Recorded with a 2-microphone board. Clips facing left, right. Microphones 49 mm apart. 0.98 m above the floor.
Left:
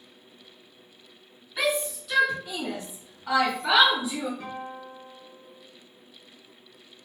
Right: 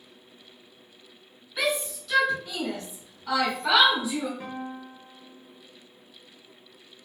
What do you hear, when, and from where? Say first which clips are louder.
1.6 s a shout: left 1 dB; 10° left (ahead or behind), 1.6 m
4.4 s a guitar: even; 20° right (ahead or behind), 1.0 m